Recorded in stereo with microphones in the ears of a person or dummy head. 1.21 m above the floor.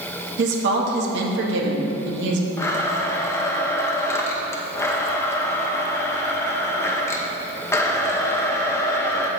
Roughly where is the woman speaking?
Right.